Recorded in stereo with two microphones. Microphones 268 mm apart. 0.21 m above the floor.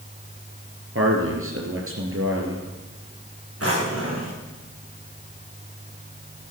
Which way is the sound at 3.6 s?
60° right (ahead or behind).